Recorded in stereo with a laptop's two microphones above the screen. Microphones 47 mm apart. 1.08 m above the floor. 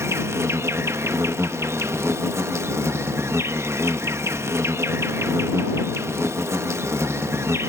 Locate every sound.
0.0 s an insect: 75° right (ahead or behind)